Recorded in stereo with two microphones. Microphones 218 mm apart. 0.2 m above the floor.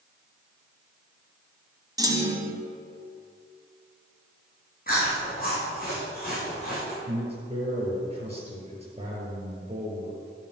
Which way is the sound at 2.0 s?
15° right (ahead or behind).